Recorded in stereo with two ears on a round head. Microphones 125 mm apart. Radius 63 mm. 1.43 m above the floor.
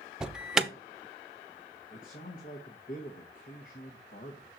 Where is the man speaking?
65° left (ahead or behind), 1.2 m.